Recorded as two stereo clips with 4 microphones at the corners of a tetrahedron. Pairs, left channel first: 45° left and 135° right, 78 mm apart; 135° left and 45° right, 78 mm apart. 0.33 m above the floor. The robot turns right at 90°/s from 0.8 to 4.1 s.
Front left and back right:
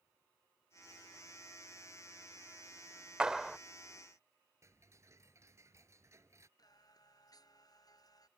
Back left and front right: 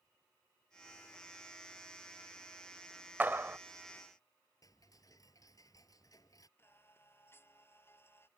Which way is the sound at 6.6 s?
75° left.